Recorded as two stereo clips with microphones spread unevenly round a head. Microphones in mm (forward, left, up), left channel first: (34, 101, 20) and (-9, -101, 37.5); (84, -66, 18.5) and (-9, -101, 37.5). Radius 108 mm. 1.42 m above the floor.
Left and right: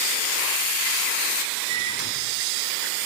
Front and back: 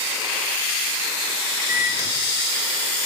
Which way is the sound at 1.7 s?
100° right.